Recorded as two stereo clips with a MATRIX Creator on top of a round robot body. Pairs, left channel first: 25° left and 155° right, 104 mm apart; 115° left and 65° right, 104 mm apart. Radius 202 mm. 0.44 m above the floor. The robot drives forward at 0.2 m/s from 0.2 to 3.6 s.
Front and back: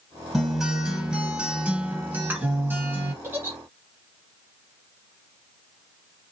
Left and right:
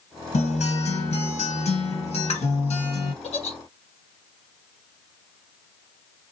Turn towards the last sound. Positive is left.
turn(degrees=135)